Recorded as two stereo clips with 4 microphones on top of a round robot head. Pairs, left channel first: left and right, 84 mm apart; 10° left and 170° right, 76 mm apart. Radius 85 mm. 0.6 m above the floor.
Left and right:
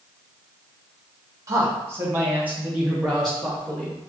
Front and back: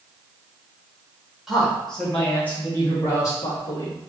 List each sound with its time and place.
1.5 s a man speaking: 80° right, 1.2 m; by 4.0 s 5° left, 1.6 m